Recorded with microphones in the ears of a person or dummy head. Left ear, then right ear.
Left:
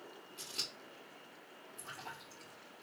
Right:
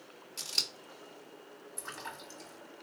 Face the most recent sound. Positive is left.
turn(degrees=-60)  # may be behind; listen again after turning